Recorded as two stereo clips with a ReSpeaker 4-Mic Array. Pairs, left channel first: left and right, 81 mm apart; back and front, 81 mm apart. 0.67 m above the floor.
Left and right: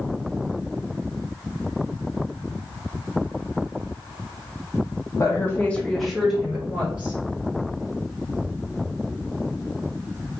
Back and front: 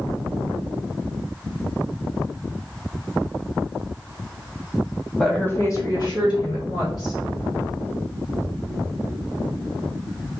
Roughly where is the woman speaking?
Left.